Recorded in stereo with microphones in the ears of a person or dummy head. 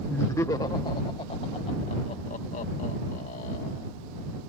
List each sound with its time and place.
0.1 s laughter: 15° left (ahead or behind); by 3.9 s 50° left (ahead or behind)